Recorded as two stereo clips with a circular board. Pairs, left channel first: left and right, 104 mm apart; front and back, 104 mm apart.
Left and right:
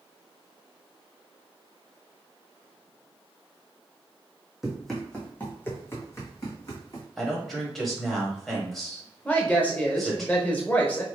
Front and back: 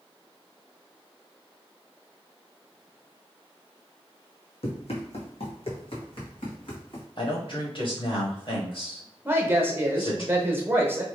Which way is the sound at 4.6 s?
5° right.